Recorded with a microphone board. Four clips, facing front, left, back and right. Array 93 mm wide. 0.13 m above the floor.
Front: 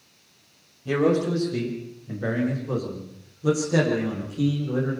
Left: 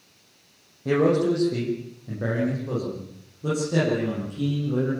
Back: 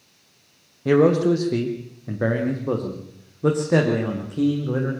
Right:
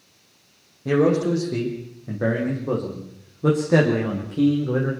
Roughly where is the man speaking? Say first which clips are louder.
Right 1 dB, back 5 dB; behind.